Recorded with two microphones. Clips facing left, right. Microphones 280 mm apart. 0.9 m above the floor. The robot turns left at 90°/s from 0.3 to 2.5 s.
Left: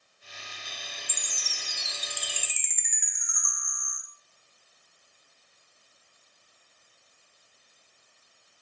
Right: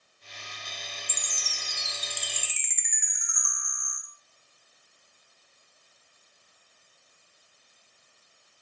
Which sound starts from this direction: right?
A chime, at 1.1 s.